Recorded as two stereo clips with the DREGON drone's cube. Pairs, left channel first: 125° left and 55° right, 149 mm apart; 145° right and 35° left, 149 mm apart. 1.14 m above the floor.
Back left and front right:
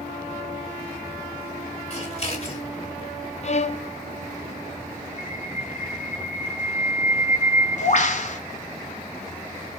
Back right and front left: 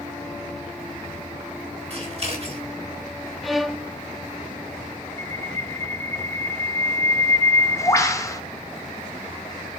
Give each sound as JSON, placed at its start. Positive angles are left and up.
{"t": 1.9, "sound": "scissors", "azimuth_deg": 80, "distance_m": 3.5}
{"t": 3.4, "sound": "a violin", "azimuth_deg": 125, "distance_m": 0.6}
{"t": 5.2, "sound": "a bird", "azimuth_deg": 150, "distance_m": 1.3}